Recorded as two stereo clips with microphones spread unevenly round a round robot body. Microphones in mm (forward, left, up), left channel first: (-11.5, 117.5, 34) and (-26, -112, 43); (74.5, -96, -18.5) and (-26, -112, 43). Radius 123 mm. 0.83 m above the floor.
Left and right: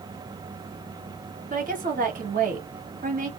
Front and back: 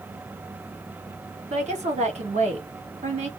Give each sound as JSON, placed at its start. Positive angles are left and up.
{"t": 1.5, "sound": "a woman speaking", "azimuth_deg": -140, "distance_m": 1.3}